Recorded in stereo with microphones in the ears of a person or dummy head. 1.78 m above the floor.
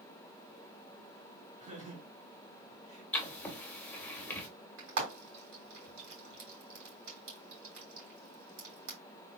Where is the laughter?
30° right (ahead or behind), 1.8 m.